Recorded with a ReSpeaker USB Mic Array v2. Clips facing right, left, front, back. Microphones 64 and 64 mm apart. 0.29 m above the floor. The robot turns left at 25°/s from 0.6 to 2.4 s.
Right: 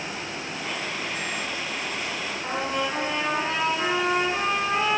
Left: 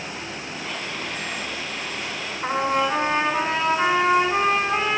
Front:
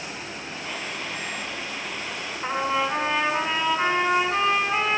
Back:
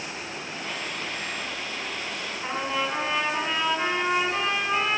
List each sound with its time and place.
2.4 s a trumpet: 75° left, 2.5 m